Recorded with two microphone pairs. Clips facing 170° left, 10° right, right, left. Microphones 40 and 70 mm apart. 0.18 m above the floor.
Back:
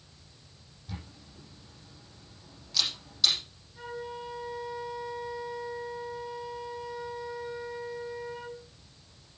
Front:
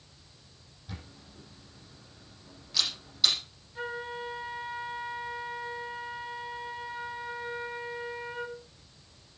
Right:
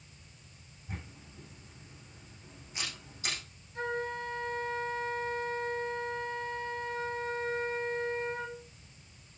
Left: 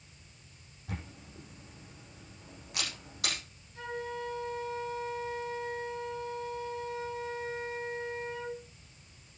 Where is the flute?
55° right, 1.7 m.